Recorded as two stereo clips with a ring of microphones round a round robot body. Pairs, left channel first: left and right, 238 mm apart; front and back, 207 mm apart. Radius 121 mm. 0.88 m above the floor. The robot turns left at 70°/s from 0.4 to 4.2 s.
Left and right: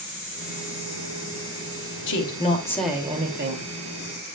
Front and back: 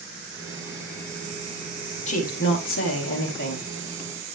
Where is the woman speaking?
55° left, 2 m; by 3.7 s 60° right, 2 m.